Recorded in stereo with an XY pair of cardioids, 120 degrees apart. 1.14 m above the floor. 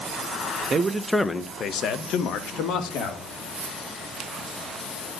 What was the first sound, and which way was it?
A man speaking, 35° right.